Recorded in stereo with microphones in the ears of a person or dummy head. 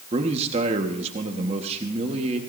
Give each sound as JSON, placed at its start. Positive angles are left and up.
{"t": 0.1, "sound": "a man speaking", "side_deg": -35, "distance_m": 1.5}